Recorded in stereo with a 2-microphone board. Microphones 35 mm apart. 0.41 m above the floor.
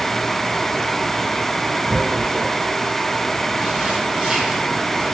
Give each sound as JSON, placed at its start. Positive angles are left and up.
{"t": 1.9, "sound": "tearing paper", "side_deg": -20, "distance_m": 0.8}